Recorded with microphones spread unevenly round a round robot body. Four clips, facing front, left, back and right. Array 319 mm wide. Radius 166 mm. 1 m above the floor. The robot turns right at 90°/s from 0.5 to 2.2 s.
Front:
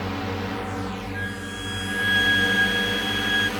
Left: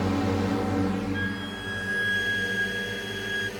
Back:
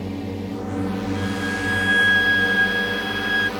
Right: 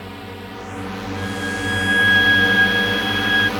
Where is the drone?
115° left; by 3.6 s 95° right.